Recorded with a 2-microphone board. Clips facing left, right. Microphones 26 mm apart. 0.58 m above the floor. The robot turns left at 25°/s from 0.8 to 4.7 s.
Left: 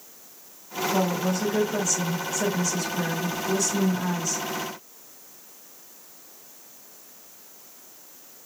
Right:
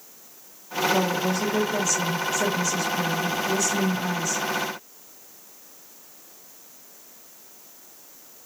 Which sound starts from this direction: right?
A woman speaking, at 0.9 s.